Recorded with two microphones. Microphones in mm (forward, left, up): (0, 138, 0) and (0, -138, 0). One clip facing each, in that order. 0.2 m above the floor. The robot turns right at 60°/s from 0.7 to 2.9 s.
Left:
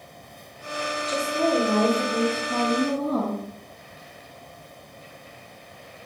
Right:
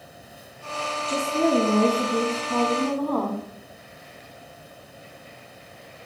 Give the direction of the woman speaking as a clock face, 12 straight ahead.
2 o'clock.